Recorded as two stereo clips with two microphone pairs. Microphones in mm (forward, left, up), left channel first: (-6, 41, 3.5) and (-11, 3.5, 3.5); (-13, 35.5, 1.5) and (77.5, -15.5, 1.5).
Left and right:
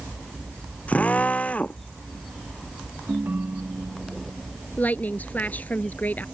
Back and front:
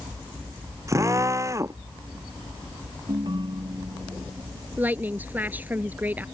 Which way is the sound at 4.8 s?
45° left.